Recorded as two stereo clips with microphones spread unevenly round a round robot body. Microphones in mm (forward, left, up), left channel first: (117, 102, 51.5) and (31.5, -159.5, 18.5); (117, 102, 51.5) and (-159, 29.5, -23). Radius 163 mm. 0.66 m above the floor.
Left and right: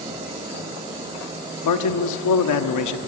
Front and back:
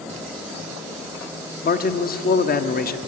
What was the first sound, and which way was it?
A man speaking, 80° left.